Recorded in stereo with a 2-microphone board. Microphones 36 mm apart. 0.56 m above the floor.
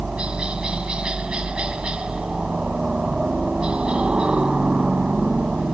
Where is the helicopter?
30° right (ahead or behind).